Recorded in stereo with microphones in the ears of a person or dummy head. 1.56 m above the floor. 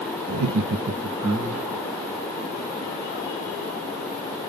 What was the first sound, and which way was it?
Laughter, 85° right.